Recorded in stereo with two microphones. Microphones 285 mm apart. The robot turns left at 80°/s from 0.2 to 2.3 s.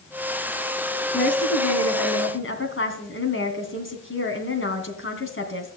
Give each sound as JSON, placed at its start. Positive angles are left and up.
{"t": 1.1, "sound": "a woman speaking", "azimuth_deg": 145, "distance_m": 2.5}